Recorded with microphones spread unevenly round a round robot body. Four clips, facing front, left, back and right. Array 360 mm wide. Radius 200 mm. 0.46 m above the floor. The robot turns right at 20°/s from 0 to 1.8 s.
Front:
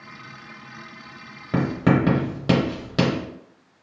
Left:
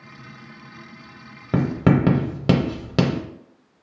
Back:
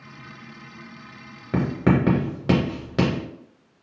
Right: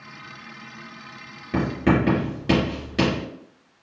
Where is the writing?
60° left, 0.6 m; by 3.2 s 65° left, 0.6 m.